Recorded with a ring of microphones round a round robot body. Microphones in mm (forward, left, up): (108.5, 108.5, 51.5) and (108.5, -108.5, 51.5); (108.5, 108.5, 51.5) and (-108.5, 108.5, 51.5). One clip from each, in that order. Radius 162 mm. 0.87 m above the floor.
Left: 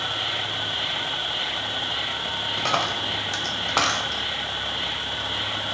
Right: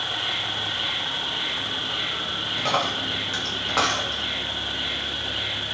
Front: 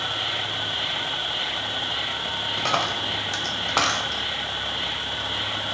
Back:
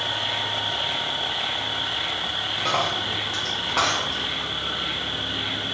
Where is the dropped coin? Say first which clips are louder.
Even, even; 35° left, 0.6 m.